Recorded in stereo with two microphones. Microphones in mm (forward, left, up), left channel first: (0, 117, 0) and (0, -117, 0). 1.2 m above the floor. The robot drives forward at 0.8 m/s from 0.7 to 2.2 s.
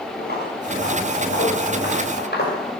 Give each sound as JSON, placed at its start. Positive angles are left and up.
{"t": 0.2, "sound": "footsteps", "side_deg": 45, "distance_m": 7.0}